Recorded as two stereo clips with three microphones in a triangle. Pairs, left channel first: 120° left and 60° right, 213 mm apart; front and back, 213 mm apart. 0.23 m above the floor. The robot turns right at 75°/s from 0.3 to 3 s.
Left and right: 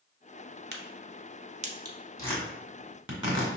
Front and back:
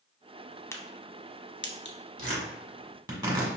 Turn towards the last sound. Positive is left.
turn(degrees=-115)